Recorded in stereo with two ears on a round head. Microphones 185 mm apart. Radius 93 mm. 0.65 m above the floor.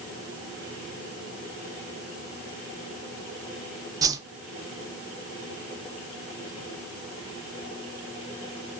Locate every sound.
4.0 s a whoosh: 15° right (ahead or behind), 0.6 m